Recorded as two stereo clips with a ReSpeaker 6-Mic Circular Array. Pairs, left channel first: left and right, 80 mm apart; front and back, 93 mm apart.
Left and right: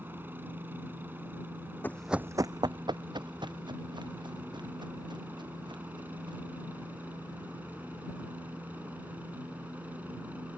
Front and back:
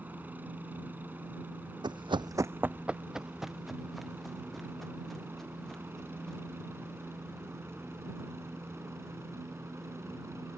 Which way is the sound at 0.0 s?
130° right.